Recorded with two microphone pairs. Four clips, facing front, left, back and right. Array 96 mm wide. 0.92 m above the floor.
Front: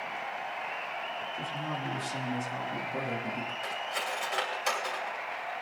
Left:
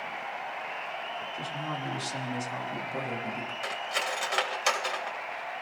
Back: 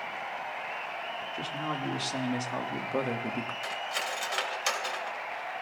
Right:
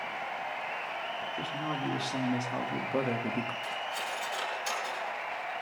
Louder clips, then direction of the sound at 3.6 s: Left 3 dB, even; 95° left.